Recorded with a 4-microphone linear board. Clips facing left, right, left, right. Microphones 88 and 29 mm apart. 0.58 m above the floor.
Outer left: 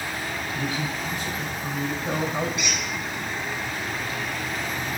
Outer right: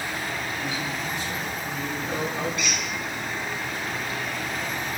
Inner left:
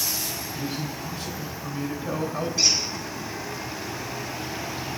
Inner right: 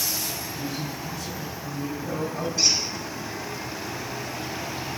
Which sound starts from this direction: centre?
A squeak, at 2.6 s.